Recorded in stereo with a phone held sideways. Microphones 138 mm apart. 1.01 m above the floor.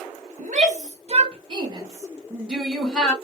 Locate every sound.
0.4 s a shout: 60° right (ahead or behind), 1.3 m; by 3.1 s 10° left (ahead or behind), 1.3 m